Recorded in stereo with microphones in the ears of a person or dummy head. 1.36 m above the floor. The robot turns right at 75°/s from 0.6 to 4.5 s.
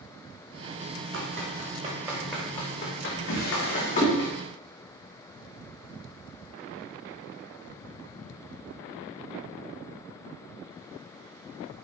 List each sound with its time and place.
1.1 s running footsteps: 70° right (ahead or behind), 4.5 m; by 4.3 s 10° left (ahead or behind), 5.5 m
3.3 s a drawer: 65° left (ahead or behind), 5 m; by 4.2 s centre (ahead or behind), 5 m